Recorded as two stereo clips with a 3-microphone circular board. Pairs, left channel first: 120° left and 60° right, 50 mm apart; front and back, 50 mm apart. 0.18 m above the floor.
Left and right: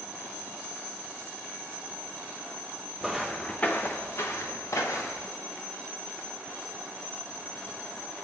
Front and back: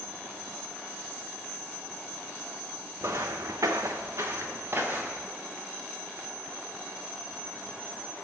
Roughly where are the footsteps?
Behind right.